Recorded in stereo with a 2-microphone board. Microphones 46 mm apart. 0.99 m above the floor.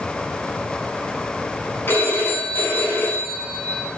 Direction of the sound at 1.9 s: 55° left (ahead or behind).